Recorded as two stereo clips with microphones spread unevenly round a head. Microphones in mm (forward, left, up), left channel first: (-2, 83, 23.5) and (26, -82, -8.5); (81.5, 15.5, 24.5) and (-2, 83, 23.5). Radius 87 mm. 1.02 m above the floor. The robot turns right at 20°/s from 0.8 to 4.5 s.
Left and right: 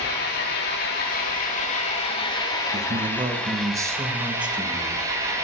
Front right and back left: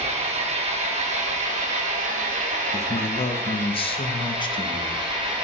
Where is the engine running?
130° left, 2 m; by 5.5 s 155° right, 2 m.